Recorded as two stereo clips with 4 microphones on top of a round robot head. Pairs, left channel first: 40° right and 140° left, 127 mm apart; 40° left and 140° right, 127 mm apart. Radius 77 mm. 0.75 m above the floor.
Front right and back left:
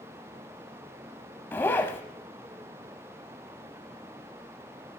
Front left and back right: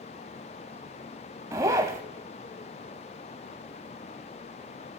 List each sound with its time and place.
1.5 s a zipper: 95° right, 0.6 m